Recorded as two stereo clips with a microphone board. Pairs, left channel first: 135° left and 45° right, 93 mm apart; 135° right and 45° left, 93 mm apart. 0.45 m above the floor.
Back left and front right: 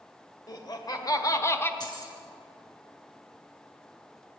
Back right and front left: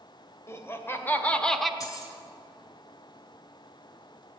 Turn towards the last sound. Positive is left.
turn(degrees=175)